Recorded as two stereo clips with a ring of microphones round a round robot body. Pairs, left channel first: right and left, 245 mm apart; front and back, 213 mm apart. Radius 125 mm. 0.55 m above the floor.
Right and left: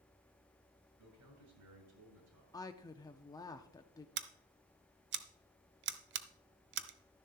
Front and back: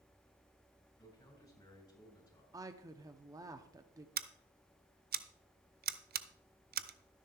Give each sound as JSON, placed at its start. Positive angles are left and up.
{"t": 1.0, "sound": "a man speaking", "azimuth_deg": 75, "distance_m": 7.5}
{"t": 2.5, "sound": "a woman speaking", "azimuth_deg": -135, "distance_m": 0.6}
{"t": 4.2, "sound": "scissors", "azimuth_deg": 135, "distance_m": 0.8}